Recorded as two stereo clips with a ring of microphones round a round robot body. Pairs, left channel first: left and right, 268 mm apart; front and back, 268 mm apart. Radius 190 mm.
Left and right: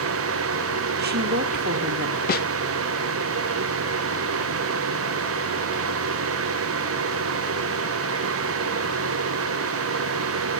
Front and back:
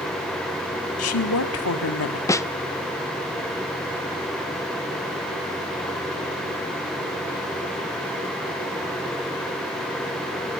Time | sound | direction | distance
1.0 | a woman speaking | 35° right | 1.5 m
2.3 | a snare drum | 70° left | 0.6 m